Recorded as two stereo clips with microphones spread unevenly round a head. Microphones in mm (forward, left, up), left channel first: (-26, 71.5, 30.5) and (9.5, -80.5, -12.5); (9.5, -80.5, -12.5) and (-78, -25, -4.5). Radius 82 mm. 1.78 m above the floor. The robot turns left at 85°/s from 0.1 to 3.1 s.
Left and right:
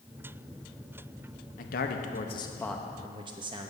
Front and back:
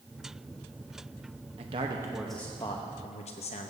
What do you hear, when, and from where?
1.6 s a man speaking: 120° left, 0.9 m; by 3.7 s 10° right, 0.9 m